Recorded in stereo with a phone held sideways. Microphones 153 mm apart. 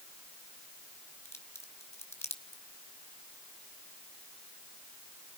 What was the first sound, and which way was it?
A crack, 15° left (ahead or behind).